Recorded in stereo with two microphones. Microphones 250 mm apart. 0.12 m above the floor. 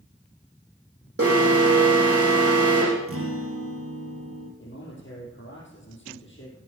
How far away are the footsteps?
No footsteps in this recording.